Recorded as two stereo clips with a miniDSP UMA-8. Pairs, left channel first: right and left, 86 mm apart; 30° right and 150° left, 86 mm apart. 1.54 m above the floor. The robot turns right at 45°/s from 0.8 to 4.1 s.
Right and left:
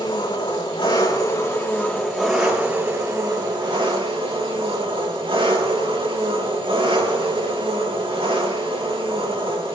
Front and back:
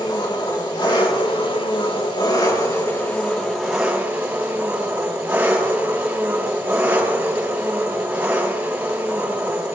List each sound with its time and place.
0.0 s an engine running: 70° right, 5 m; by 9.8 s 80° left, 5 m